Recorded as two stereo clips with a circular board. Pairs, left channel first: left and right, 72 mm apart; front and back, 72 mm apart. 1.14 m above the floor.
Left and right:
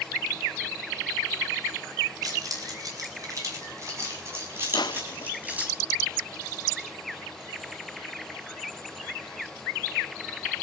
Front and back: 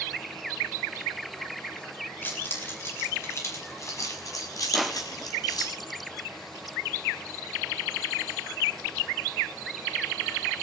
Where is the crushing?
90° left, 0.7 m.